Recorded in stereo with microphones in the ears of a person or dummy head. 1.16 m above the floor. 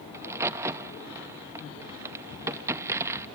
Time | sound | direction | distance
0.1 | a crack | 10° right (ahead or behind) | 0.6 m